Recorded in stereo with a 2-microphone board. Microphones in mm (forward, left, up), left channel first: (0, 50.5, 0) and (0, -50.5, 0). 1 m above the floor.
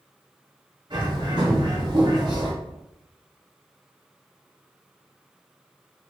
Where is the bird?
50° right (ahead or behind), 1.1 m.